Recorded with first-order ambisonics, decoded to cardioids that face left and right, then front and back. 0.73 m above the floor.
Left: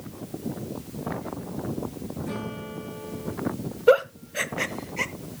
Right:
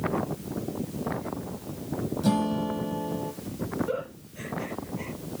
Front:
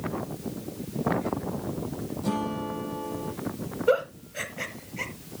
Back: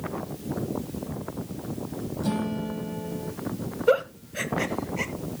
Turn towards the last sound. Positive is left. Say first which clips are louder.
# left 13 dB, back 2 dB
turn(degrees=100)